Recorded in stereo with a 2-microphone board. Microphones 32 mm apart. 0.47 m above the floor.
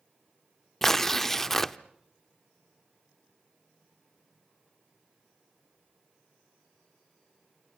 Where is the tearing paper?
10° left (ahead or behind), 0.5 m.